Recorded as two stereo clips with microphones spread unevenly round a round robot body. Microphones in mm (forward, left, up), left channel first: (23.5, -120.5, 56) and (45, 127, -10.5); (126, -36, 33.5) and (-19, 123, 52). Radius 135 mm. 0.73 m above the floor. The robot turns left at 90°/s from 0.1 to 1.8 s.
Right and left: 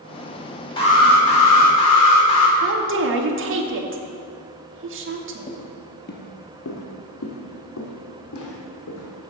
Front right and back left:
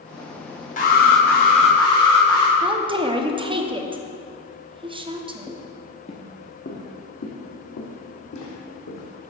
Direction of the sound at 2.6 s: 65° left.